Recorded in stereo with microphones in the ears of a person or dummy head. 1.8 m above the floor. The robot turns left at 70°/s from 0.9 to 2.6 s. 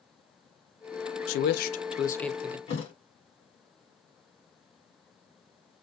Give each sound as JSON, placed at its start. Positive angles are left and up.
{"t": 1.3, "sound": "a man speaking", "azimuth_deg": 80, "distance_m": 0.7}
{"t": 2.7, "sound": "a thud", "side_deg": 40, "distance_m": 3.0}